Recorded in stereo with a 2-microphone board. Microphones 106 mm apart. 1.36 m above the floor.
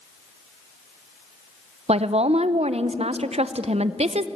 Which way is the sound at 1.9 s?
75° right (ahead or behind).